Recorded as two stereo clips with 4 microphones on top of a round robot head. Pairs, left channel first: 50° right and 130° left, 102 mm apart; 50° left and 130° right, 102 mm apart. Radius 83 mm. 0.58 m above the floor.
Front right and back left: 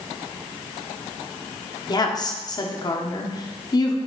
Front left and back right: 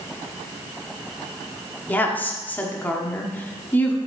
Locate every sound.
1.9 s a woman speaking: 15° right, 1.3 m